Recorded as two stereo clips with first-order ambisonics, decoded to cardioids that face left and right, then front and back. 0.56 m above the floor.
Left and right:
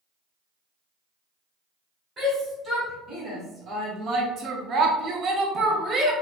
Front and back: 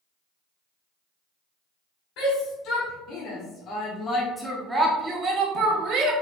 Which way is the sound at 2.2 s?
15° right.